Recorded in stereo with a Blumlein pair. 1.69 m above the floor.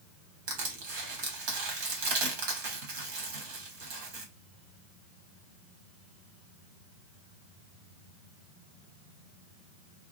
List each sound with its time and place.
0.5 s crushing: 50° right, 1.4 m